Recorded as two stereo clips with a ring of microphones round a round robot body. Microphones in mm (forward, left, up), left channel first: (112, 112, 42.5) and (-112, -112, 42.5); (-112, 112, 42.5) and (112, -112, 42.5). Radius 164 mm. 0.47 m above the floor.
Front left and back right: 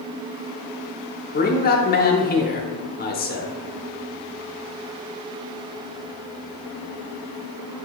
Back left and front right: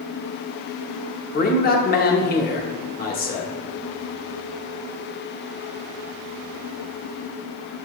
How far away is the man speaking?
About 0.9 m.